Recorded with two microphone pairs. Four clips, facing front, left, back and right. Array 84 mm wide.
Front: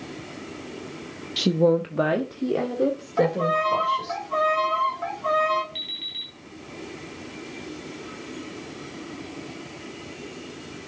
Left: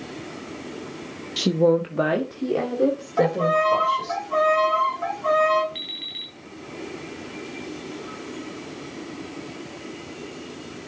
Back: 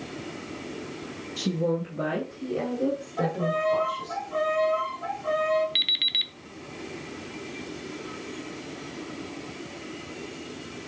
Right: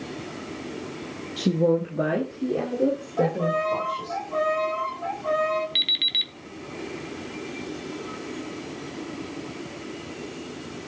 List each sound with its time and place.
1.4 s a woman speaking: 50° left, 0.5 m; by 4.2 s 45° left, 3 m
3.2 s a violin: 50° left, 4 m
5.8 s an alarm clock: 150° right, 1.0 m